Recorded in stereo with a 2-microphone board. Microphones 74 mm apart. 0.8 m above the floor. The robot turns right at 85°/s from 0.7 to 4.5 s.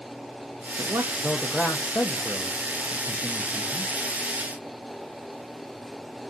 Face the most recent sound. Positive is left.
turn(degrees=-110)